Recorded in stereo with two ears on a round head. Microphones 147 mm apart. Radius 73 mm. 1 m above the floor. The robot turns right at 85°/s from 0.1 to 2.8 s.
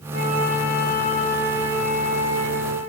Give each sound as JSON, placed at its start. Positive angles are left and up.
{"t": 0.1, "sound": "a flute", "azimuth_deg": 60, "distance_m": 3.5}